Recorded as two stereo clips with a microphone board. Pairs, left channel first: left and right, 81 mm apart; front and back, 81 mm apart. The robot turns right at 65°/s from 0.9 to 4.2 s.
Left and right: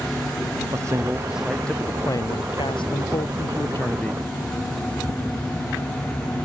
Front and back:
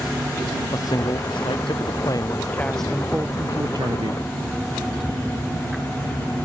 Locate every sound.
0.7 s a man speaking: 40° right; by 4.3 s 175° left